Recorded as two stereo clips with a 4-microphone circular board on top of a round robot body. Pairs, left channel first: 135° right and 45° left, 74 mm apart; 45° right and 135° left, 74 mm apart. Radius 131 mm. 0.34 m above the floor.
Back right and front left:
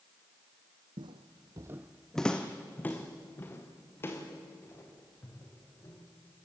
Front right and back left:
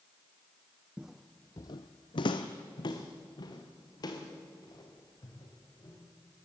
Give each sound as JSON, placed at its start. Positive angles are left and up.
{"t": 1.0, "sound": "footsteps", "azimuth_deg": 60, "distance_m": 0.9}